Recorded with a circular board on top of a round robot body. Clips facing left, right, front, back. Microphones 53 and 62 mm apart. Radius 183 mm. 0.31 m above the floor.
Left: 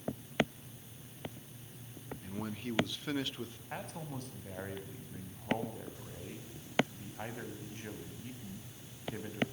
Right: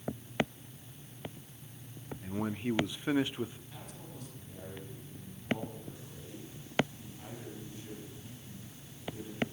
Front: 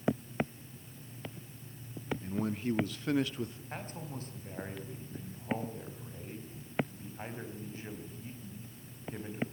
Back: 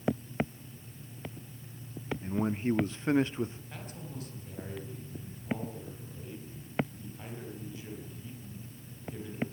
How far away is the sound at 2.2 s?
About 0.9 m.